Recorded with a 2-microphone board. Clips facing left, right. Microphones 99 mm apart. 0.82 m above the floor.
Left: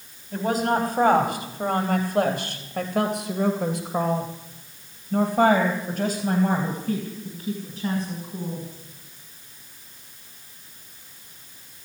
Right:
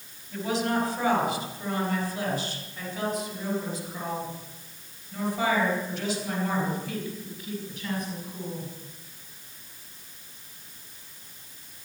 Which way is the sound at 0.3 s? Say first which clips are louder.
Left 4 dB; 45° left (ahead or behind).